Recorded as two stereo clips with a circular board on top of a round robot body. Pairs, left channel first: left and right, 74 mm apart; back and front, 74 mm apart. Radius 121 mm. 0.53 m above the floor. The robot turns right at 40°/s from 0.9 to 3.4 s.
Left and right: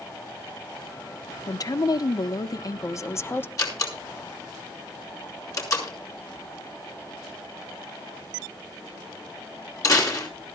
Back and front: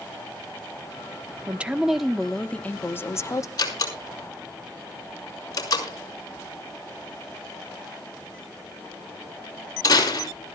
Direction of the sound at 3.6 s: 135° left.